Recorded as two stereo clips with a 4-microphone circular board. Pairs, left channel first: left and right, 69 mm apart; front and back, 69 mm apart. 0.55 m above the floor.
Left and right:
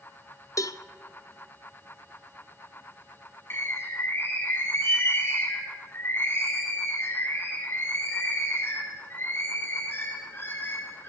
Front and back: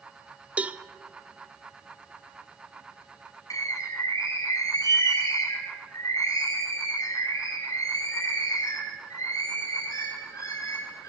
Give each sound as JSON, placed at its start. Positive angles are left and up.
{"t": 0.6, "sound": "a cowbell", "azimuth_deg": 115, "distance_m": 0.8}
{"t": 3.5, "sound": "a bird", "azimuth_deg": 35, "distance_m": 5.5}